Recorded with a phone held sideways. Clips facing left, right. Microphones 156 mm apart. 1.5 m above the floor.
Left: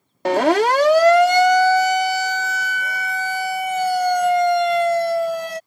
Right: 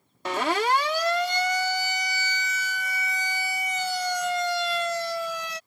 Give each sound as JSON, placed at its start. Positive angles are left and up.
{"t": 0.2, "sound": "a siren", "side_deg": 65}